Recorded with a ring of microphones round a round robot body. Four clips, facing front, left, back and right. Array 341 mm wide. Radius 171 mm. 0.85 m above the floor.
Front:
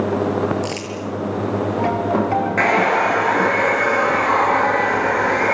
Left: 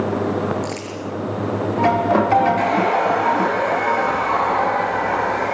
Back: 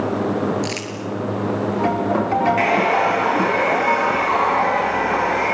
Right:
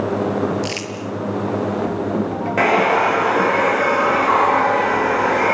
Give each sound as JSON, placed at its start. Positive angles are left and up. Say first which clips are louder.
{"t": 0.6, "sound": "crumpling", "louder": "right 1 dB, front 1 dB", "azimuth_deg": -115, "distance_m": 7.5}
{"t": 2.6, "sound": "a hair dryer", "louder": "right 2 dB, front 1 dB", "azimuth_deg": -75, "distance_m": 6.5}